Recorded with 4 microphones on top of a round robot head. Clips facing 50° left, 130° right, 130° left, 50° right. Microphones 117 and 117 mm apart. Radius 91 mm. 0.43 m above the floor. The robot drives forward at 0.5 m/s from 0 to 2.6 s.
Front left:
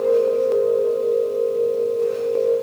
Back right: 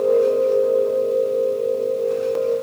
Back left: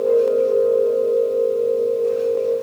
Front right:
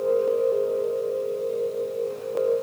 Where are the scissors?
I don't hear scissors.